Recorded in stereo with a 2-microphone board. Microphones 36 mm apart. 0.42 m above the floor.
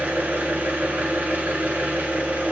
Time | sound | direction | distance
0.0 | an engine running | 60° right (ahead or behind) | 1.5 m